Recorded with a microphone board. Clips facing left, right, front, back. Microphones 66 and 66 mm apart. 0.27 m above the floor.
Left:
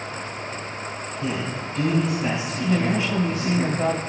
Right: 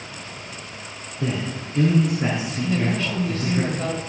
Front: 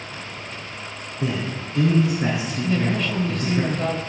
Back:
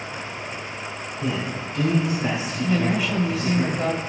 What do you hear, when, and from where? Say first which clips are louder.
1.2 s a man speaking: right 2 dB, front 1 dB; 55° right, 4 m
2.6 s a woman speaking: left 2 dB, back 1 dB; 115° left, 0.9 m